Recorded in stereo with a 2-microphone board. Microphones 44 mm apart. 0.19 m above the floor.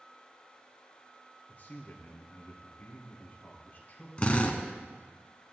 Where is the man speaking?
40° left (ahead or behind), 3 m.